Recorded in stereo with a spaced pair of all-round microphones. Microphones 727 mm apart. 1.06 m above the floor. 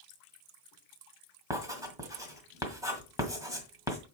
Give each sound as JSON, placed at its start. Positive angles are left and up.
{"t": 1.5, "sound": "writing", "side_deg": -5, "distance_m": 1.7}